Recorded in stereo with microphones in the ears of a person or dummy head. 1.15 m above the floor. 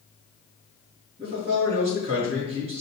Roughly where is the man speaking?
Right.